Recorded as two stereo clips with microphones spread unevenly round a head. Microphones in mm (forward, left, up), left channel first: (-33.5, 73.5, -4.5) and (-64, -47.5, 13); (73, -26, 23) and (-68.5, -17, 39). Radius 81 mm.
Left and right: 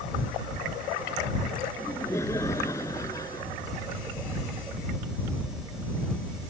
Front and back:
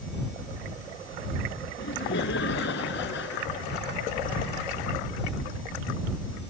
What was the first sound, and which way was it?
Laughter, straight ahead.